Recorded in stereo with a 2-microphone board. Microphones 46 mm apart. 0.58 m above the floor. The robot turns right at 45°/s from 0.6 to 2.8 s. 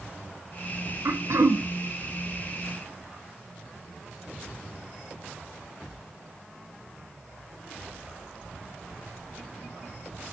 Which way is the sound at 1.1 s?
75° right (ahead or behind).